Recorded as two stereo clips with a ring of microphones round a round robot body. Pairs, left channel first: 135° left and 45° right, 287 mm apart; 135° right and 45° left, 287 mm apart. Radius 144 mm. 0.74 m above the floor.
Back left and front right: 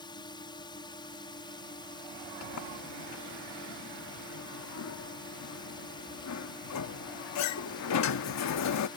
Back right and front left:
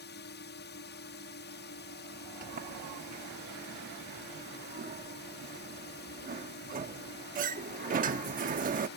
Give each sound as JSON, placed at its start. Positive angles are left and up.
{"t": 0.0, "sound": "a drone", "azimuth_deg": -160}
{"t": 2.4, "sound": "a sliding door", "azimuth_deg": 105}